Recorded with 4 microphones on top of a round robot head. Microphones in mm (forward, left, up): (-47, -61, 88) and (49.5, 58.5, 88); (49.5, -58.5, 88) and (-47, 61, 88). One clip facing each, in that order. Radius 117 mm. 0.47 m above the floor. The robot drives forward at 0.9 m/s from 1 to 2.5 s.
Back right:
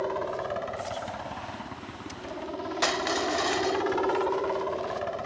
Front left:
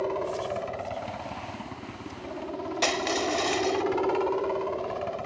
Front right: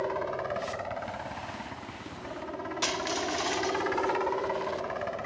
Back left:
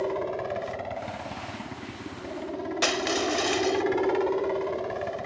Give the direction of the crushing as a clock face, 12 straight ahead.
8 o'clock.